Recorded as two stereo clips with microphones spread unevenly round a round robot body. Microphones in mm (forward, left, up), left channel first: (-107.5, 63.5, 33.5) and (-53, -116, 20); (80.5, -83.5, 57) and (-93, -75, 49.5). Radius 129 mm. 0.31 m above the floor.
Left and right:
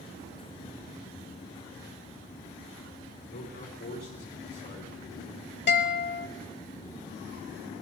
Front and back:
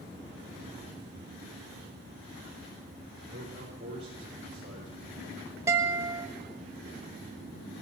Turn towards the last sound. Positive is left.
turn(degrees=105)